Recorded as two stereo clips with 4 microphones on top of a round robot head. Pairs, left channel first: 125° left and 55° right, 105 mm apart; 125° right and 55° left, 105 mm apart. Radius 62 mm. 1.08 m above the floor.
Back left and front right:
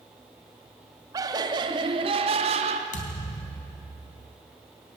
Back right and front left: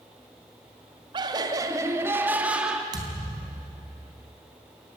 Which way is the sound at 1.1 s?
5° left.